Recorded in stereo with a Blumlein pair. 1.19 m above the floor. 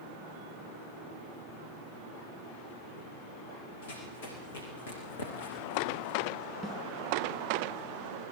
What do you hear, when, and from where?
3.8 s running footsteps: 60° left, 6 m
6.6 s a snare drum: 20° right, 8 m